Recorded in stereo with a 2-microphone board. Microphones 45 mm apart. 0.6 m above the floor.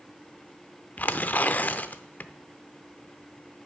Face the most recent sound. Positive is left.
turn(degrees=35)  # may be behind; listen again after turning